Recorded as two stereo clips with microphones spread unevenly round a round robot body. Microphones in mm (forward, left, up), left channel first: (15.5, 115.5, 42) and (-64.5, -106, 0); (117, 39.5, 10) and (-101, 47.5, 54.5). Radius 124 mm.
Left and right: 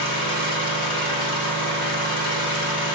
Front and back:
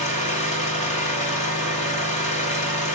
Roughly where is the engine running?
Ahead left.